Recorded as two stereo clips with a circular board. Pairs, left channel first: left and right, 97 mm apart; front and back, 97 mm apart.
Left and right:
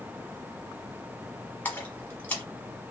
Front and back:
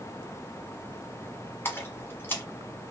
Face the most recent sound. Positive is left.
turn(degrees=40)